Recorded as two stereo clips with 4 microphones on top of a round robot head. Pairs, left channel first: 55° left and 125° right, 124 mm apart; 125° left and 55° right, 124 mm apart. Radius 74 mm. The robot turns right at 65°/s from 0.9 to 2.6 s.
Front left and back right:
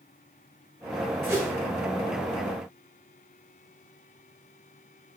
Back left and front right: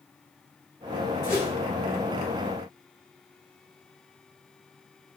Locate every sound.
1.2 s a whoosh: 170° left, 1.2 m; by 1.5 s 170° right, 1.2 m